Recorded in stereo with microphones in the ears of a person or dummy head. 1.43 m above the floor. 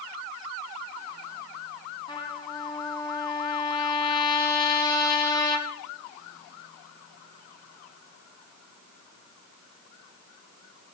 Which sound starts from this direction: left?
A trumpet, at 2.1 s.